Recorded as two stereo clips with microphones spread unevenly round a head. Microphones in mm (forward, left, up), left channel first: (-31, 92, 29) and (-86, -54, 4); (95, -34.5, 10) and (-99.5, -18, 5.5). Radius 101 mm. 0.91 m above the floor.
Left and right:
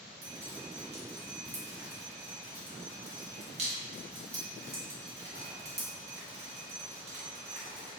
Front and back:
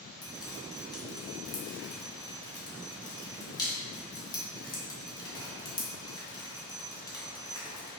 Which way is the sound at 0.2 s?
75° right.